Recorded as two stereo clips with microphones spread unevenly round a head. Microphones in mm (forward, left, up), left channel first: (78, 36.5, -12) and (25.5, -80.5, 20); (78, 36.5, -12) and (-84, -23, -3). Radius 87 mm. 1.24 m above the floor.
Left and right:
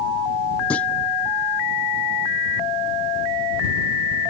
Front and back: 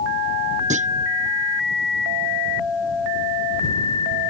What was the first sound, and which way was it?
A clunk, 150° left.